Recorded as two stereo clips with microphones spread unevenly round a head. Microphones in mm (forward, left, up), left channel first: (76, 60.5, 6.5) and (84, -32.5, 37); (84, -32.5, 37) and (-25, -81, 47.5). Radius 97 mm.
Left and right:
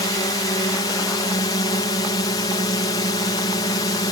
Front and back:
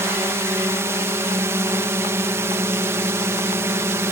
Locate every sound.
0.0 s a drone: 130° left